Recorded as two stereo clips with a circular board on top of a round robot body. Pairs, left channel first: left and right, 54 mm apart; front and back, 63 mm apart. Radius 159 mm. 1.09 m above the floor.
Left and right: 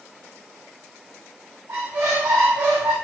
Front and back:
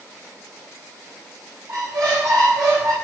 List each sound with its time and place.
1.7 s a squeak: 145° right, 3.5 m